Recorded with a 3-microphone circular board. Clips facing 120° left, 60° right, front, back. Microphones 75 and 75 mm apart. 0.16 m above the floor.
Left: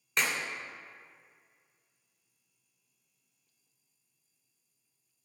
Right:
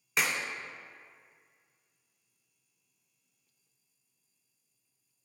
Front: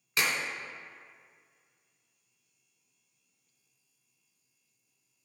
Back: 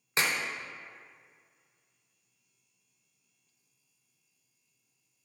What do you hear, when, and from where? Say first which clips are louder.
0.2 s a clap: even, even; 145° right, 1.1 m